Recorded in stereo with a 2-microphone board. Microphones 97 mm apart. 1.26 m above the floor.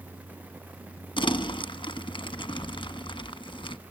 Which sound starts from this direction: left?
Crumpling, at 1.2 s.